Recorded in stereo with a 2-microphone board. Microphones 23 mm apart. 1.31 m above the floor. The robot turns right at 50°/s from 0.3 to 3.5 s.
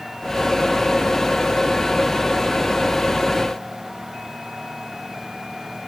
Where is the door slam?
I don't hear a door slam.